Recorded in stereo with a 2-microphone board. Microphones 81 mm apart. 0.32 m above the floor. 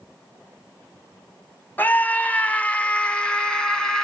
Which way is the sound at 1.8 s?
25° left (ahead or behind).